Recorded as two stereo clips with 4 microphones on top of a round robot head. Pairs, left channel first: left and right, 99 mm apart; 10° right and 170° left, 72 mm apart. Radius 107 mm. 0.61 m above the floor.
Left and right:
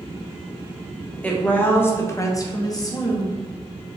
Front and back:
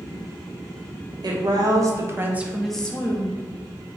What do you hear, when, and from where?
1.2 s a woman speaking: 165° left, 1.6 m; by 3.4 s 40° left, 1.3 m